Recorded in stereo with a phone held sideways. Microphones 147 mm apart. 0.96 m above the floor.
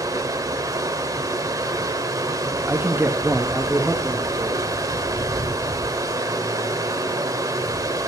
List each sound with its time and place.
0.0 s running water: 25° right (ahead or behind), 1.2 m
2.7 s a man speaking: 15° right (ahead or behind), 1.4 m